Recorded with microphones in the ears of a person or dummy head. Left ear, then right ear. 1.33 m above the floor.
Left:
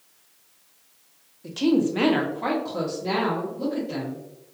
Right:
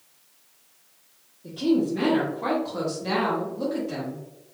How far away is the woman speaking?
About 0.9 m.